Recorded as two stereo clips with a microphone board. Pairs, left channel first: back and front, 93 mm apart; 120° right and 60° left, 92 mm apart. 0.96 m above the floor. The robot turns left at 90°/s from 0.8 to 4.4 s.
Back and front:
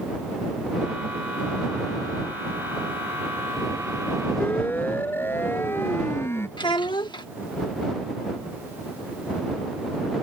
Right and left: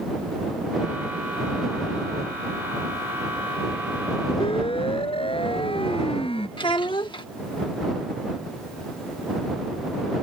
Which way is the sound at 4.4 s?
110° right.